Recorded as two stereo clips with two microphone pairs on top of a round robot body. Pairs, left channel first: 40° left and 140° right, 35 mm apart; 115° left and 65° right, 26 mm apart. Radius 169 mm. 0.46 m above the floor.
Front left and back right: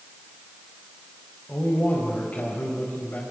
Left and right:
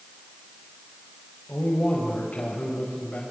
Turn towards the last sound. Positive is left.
turn(degrees=80)